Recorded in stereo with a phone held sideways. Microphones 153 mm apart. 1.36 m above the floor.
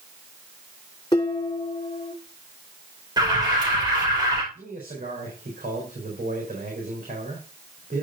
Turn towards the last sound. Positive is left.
turn(degrees=-80)